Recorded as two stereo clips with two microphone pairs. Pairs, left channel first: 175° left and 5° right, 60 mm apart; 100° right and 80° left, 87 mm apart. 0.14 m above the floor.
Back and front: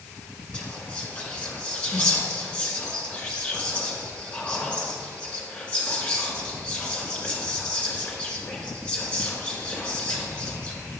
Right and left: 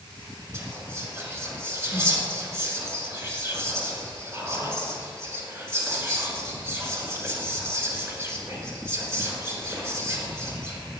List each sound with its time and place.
0.5 s whispering: 120° left, 1.5 m